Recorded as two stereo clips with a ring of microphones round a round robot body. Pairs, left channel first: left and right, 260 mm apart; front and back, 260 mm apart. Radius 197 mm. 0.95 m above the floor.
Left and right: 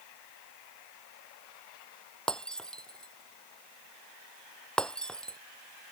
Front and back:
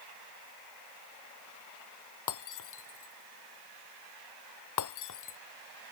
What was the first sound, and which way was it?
Breaking glass, 5° left.